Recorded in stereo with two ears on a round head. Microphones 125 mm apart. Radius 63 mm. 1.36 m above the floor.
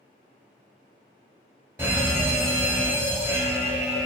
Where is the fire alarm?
15° right (ahead or behind), 1.3 m.